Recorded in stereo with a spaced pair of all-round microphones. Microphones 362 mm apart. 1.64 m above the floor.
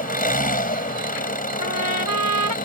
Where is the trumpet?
65° right (ahead or behind).